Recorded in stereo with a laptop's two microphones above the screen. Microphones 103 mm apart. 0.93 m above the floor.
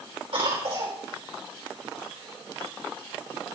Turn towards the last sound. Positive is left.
turn(degrees=-70)  # may be behind; listen again after turning